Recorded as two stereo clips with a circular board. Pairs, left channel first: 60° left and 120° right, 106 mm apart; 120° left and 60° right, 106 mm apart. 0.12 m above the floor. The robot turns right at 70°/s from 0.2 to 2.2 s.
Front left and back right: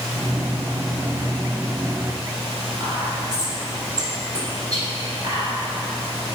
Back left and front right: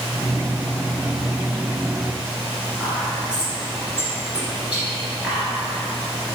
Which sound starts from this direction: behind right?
Whispering, at 2.8 s.